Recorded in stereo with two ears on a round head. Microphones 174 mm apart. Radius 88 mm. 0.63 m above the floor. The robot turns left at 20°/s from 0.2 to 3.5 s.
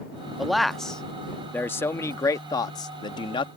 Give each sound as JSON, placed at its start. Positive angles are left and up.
{"t": 0.4, "sound": "a man speaking", "side_deg": 0}